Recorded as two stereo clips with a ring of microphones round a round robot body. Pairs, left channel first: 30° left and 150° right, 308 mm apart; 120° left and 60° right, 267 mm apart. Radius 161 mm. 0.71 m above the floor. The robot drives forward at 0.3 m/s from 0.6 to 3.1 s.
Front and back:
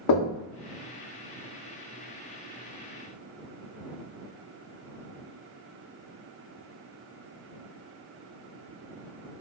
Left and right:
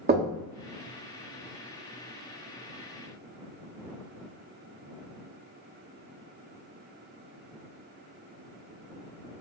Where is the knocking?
Straight ahead, 0.7 m.